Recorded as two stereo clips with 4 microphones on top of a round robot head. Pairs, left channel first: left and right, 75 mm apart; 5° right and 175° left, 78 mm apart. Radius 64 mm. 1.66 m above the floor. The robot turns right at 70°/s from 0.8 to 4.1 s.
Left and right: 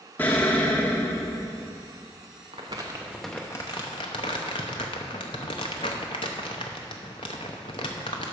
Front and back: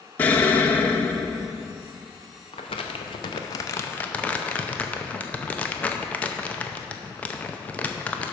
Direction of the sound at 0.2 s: 40° left.